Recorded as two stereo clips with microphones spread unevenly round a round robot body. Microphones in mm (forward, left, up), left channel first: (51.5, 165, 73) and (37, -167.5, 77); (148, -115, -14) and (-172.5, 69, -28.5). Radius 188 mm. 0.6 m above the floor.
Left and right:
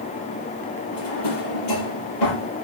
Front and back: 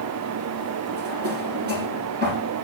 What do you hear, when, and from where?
0.9 s a drawer: 85° left, 7 m